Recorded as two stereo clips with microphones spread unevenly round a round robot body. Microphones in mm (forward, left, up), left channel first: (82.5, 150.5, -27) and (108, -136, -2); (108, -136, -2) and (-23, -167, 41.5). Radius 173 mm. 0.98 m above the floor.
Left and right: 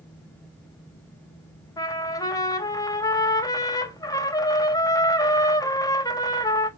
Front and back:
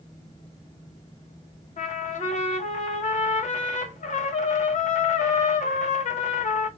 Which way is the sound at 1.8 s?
20° left.